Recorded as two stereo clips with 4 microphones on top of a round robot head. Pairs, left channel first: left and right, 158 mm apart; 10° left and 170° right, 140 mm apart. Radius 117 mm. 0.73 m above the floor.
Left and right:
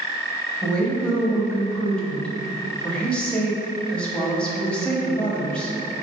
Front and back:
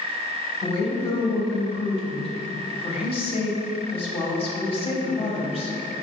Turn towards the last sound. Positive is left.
turn(degrees=10)